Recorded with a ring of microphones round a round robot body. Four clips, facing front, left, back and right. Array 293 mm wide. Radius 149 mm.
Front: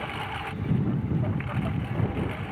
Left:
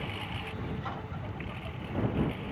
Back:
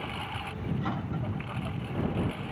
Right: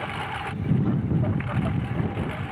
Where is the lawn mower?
70° right.